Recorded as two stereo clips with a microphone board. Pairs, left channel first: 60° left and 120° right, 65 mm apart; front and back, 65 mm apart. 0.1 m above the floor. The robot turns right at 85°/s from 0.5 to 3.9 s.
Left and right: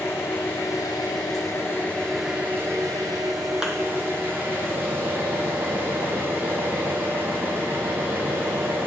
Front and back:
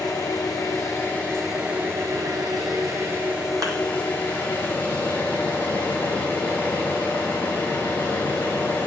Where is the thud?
160° left, 0.9 m; by 3.8 s 170° left, 0.9 m.